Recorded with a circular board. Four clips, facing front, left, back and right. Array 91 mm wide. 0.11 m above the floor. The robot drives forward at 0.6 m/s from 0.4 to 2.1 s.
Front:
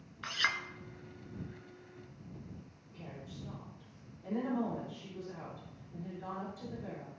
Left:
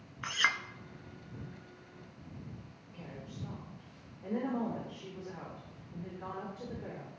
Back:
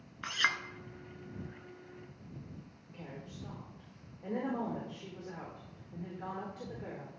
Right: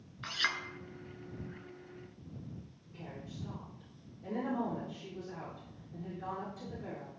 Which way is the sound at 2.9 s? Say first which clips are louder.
Even, back 1 dB; 155° left.